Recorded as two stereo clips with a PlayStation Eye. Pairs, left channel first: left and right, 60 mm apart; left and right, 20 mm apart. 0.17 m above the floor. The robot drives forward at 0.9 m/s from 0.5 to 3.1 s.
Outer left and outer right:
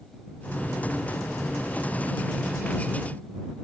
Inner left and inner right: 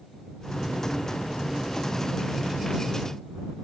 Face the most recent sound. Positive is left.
No sound to turn to.